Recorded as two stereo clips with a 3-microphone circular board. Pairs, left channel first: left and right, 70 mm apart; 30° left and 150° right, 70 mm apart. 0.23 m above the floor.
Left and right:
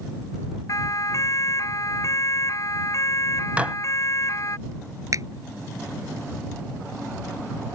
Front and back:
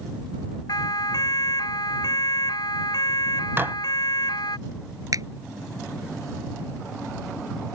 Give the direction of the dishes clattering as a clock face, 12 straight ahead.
5 o'clock.